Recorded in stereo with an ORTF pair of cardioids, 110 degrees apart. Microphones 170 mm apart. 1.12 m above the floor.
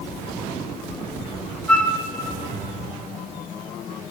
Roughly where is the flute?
Ahead.